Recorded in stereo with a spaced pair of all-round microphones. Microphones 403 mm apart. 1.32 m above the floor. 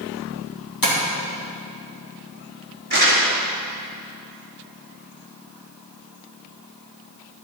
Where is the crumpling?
75° right (ahead or behind), 4 m.